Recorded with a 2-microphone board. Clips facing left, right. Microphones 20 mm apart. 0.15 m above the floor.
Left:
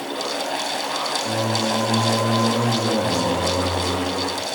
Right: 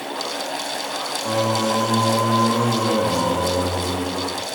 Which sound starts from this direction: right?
Singing, at 1.2 s.